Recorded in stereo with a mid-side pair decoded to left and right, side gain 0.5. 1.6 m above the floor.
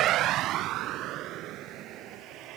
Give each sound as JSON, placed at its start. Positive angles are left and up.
{"t": 0.0, "sound": "a vehicle", "azimuth_deg": -70}